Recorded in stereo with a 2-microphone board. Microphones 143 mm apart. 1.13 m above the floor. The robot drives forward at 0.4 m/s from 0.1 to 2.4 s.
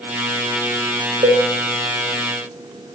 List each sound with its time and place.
1.2 s a cowbell: 50° right (ahead or behind), 1.0 m